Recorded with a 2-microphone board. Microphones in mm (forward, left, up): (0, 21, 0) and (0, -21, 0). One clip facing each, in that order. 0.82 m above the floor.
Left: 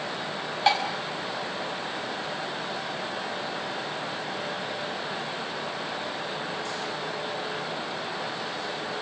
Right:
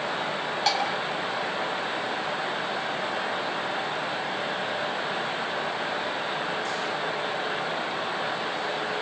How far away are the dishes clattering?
About 3 m.